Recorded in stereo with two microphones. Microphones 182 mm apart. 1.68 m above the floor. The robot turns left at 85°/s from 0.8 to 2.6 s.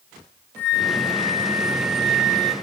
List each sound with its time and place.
0.6 s a flute: 170° left, 2 m; by 2.5 s 20° left, 2 m